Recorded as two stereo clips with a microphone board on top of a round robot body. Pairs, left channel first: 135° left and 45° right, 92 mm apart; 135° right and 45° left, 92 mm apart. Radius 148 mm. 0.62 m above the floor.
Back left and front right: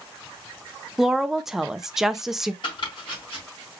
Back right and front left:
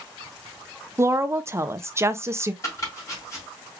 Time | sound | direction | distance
1.0 | a woman speaking | 35° left | 0.5 m
2.6 | chopping | 165° left | 3 m